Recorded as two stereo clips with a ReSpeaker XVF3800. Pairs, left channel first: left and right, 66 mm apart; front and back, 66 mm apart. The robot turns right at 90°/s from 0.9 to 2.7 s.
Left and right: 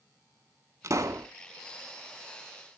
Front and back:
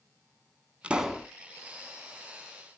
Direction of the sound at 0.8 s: 110° right.